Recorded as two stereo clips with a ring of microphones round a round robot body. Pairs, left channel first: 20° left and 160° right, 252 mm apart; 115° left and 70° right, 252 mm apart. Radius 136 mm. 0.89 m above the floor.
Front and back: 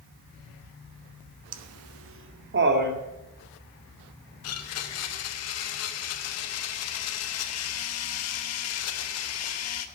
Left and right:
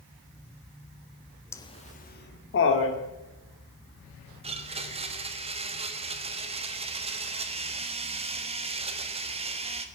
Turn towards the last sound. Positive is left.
turn(degrees=0)